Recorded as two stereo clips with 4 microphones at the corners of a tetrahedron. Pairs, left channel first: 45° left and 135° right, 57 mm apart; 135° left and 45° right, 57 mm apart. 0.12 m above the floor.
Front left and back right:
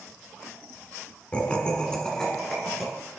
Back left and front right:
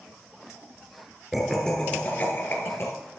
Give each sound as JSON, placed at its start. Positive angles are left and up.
{"t": 1.3, "sound": "laughter", "azimuth_deg": 25, "distance_m": 1.3}